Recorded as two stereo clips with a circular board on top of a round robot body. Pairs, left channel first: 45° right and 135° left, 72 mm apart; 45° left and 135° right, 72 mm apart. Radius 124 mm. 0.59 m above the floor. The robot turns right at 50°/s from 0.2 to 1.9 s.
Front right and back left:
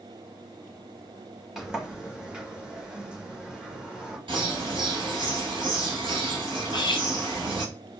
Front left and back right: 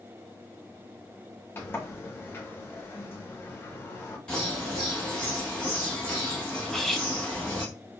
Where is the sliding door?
50° left, 1.3 m; by 4.2 s 70° left, 1.3 m.